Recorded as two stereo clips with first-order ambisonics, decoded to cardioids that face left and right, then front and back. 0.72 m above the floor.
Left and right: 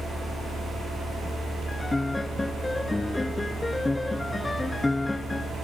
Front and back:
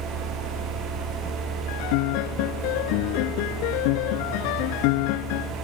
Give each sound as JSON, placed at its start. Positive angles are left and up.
{"t": 1.7, "sound": "a piano", "azimuth_deg": 5}